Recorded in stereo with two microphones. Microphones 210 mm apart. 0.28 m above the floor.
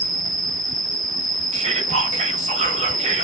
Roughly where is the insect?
Centre.